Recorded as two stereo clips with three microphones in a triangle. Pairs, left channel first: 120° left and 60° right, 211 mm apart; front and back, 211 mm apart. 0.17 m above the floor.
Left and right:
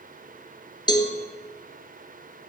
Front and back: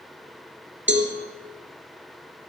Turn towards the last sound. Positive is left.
turn(degrees=-175)